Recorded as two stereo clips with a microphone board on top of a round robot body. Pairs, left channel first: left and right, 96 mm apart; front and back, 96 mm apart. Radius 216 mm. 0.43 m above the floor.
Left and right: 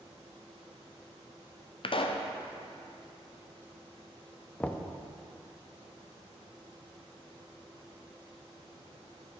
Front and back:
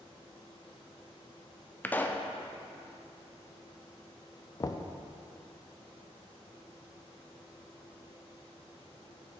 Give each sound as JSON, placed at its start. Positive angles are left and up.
{"t": 1.8, "sound": "a pop", "azimuth_deg": 70, "distance_m": 0.6}
{"t": 4.6, "sound": "knocking", "azimuth_deg": 20, "distance_m": 0.6}